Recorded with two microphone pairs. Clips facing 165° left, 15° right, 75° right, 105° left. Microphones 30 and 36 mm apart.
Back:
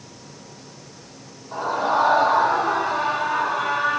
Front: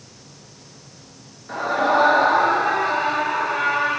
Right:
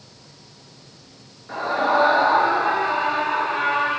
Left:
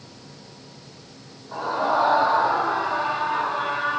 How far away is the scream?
About 5.5 m.